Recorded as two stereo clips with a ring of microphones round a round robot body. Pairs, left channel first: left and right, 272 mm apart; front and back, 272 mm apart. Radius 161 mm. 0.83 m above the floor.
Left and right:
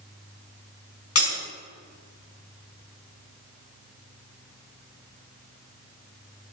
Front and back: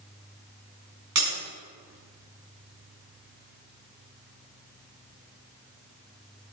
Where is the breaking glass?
125° left, 5.5 m.